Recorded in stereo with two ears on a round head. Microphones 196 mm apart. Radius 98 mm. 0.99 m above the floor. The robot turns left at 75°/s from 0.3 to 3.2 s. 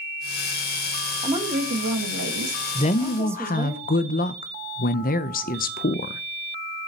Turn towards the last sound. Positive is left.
turn(degrees=110)